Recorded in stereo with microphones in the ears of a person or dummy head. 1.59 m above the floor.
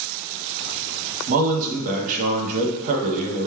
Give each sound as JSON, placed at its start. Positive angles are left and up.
{"t": 1.3, "sound": "a man speaking", "side_deg": -45, "distance_m": 0.8}